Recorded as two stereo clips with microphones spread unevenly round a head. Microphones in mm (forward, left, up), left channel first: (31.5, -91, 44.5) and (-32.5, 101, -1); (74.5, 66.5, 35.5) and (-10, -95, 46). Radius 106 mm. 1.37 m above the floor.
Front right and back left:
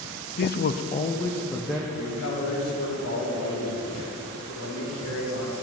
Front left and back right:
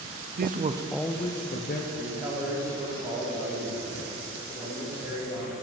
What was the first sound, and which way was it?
A man speaking, 115° right.